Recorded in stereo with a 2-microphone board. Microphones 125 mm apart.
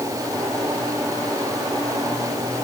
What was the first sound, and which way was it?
Only background noise.